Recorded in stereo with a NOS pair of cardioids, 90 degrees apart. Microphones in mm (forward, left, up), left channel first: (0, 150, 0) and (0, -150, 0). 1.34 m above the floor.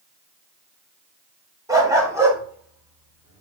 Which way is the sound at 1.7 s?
10° right.